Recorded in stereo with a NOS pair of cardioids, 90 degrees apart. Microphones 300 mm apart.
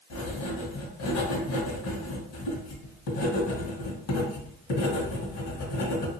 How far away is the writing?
About 1.2 m.